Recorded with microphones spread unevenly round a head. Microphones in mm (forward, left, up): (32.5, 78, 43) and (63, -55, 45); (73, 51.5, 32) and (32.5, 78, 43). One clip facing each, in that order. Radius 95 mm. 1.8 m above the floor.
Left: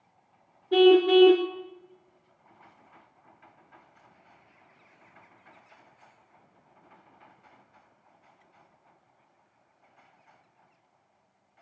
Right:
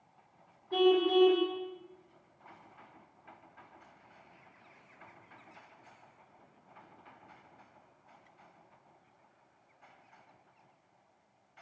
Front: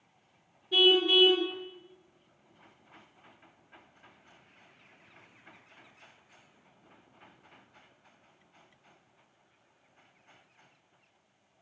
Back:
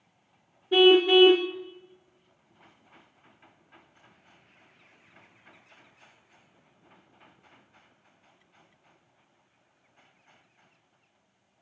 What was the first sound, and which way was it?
A car horn, 140° left.